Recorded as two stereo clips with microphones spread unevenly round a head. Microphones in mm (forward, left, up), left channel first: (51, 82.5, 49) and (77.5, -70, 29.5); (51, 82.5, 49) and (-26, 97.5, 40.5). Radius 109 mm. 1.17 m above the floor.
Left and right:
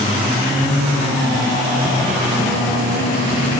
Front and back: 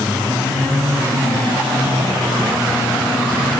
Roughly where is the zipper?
I don't hear a zipper.